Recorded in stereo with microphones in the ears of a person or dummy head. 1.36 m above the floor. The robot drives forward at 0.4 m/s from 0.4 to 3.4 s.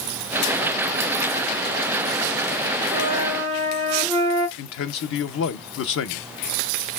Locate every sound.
2.9 s a flute: 15° right (ahead or behind), 2.5 m
4.6 s a man speaking: 60° left (ahead or behind), 0.6 m